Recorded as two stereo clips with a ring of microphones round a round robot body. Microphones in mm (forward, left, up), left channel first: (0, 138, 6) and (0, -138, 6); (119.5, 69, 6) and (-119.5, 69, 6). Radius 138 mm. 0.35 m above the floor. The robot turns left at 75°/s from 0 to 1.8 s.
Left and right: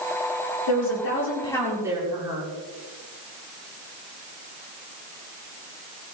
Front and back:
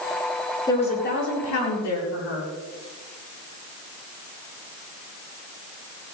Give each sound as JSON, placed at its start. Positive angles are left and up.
{"t": 0.7, "sound": "a woman speaking", "azimuth_deg": 75, "distance_m": 7.5}